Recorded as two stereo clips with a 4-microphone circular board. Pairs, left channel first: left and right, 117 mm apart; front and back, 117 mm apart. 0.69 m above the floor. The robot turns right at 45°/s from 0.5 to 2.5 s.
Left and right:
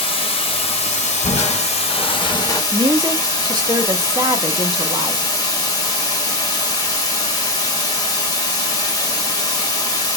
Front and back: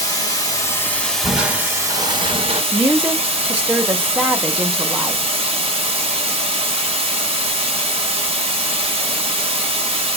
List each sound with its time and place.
0.0 s running water: 55° left, 1.0 m; by 10.2 s 145° left, 1.0 m
1.2 s crushing: 95° left, 1.0 m; by 2.6 s 150° left, 1.0 m
2.7 s a woman speaking: 110° right, 0.7 m